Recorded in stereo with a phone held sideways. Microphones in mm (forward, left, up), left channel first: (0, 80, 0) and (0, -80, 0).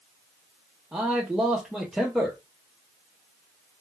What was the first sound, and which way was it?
A man speaking, 5° right (ahead or behind).